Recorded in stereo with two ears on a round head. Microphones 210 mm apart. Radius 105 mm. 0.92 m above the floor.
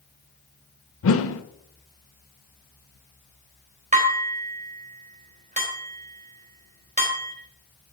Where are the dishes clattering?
30° right (ahead or behind), 3 m.